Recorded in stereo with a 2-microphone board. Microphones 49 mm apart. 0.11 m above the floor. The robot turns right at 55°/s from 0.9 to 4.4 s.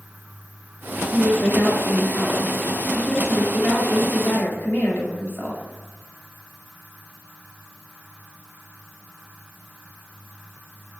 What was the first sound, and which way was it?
A woman speaking, 90° right.